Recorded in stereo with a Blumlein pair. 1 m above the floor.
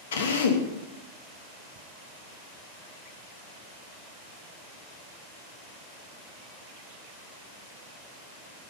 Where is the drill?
60° left, 1.2 m.